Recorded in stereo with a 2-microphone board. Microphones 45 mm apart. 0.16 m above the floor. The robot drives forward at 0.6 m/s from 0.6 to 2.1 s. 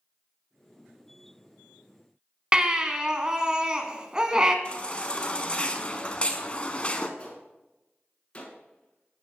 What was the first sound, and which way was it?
A baby crying, 20° right (ahead or behind).